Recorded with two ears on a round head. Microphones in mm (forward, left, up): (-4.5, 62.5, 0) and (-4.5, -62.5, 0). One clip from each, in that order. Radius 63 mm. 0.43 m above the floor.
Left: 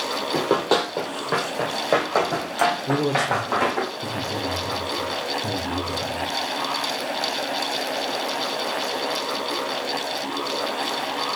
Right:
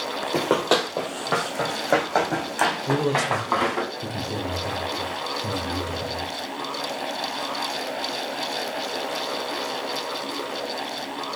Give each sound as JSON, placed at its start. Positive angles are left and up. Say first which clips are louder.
{"t": 0.3, "sound": "running footsteps", "louder": "even", "side_deg": -25, "distance_m": 0.7}
{"t": 2.9, "sound": "a man speaking", "louder": "left 1 dB", "side_deg": -10, "distance_m": 0.8}